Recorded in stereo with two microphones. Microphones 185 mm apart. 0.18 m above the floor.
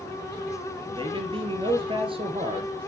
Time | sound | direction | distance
0.9 | a man speaking | 30° right (ahead or behind) | 3 m